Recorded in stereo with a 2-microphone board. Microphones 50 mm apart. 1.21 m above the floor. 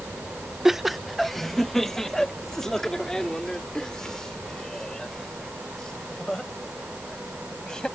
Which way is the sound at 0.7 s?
5° right (ahead or behind).